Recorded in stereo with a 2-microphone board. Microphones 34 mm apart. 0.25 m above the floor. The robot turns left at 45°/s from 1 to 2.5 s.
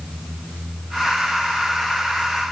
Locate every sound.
Only background noise.